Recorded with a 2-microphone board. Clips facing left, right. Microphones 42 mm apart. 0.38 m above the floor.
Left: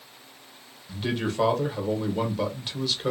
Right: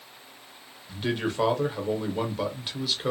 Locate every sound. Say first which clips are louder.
0.9 s a man speaking: even; 5° right (ahead or behind), 0.9 m